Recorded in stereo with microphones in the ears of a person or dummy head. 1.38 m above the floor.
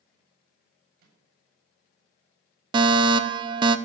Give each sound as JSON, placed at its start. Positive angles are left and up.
{"t": 1.0, "sound": "a microwave", "side_deg": -55, "distance_m": 8.0}
{"t": 2.7, "sound": "a fire alarm", "side_deg": -25, "distance_m": 1.0}